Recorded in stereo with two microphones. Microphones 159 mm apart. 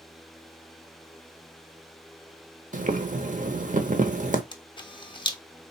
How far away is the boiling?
About 0.7 m.